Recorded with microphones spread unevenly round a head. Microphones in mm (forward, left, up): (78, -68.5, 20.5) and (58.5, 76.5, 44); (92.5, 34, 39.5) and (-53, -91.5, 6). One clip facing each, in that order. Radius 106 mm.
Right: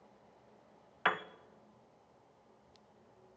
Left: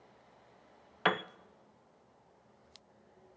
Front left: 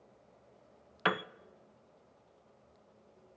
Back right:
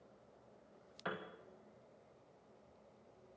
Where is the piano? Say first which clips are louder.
Left 4 dB, front left 10 dB; 40° left, 0.6 m.